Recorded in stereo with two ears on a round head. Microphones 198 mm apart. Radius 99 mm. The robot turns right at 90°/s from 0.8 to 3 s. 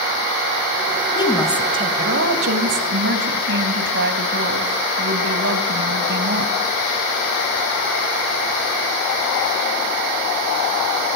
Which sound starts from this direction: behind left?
A woman speaking, at 1.1 s.